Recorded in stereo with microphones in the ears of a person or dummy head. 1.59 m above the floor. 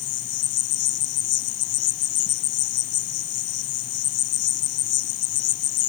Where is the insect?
45° left (ahead or behind).